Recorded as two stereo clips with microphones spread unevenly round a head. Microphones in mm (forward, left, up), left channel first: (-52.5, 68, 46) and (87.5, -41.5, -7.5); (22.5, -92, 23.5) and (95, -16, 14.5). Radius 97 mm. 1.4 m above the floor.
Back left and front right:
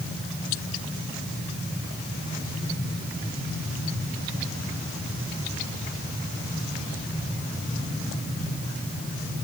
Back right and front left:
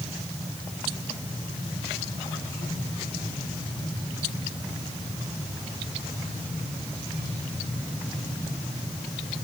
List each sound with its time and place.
Only background noise.